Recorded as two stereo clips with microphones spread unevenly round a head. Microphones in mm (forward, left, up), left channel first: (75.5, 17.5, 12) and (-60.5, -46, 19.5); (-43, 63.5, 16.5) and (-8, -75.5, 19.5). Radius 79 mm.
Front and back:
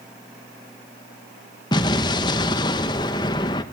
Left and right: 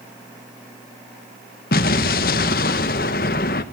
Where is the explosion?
85° left, 1.0 m.